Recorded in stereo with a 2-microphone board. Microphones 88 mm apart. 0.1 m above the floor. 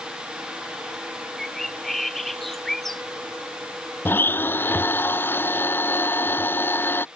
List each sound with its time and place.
1.4 s a bird: 5° left (ahead or behind)
4.0 s a blender: 25° left (ahead or behind)